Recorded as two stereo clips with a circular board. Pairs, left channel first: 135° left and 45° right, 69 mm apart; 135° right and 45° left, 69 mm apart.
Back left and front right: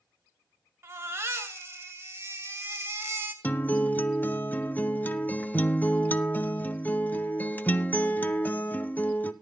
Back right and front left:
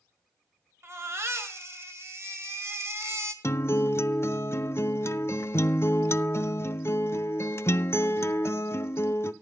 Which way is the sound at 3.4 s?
170° right.